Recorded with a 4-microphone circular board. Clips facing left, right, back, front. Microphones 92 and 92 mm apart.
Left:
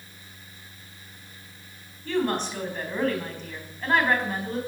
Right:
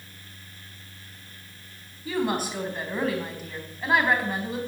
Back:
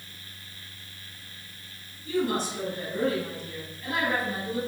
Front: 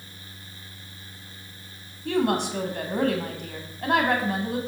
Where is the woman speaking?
10° right, 4 m.